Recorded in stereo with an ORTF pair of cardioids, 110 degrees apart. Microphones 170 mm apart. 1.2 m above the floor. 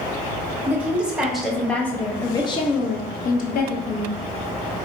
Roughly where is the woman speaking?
Ahead.